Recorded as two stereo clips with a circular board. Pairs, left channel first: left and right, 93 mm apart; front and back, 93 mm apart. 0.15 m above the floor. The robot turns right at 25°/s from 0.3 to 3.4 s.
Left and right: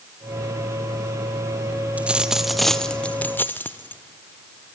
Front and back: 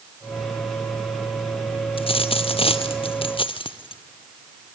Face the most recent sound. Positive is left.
turn(degrees=20)